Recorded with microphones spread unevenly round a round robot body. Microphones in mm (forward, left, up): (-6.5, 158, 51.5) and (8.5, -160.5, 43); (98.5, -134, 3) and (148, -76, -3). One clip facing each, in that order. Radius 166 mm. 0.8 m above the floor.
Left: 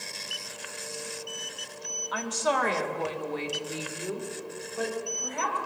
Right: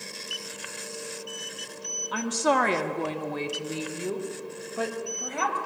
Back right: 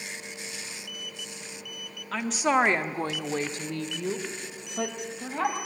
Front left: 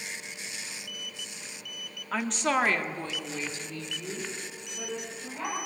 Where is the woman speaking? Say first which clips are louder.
Right 4 dB, back right 3 dB; 30° right, 1.5 m; by 5.6 s 120° right, 4.5 m.